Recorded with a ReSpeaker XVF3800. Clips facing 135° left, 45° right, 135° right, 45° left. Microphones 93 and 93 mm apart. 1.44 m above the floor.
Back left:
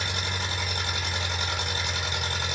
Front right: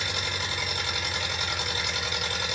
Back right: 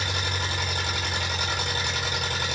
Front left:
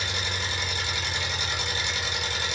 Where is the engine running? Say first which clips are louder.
Back left 1 dB, back right 2 dB; 165° right, 1.3 m.